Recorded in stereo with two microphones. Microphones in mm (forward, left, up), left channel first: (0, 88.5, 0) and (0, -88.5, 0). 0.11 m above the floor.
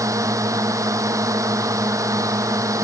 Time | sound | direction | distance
0.0 | a drone | 20° right (ahead or behind) | ?